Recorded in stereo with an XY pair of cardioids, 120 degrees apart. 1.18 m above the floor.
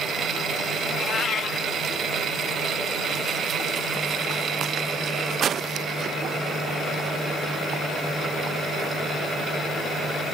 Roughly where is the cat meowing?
Ahead left.